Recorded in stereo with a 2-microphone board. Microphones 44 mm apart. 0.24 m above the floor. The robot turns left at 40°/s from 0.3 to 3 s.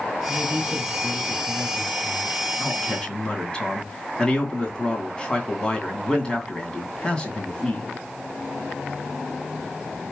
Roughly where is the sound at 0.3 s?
Right.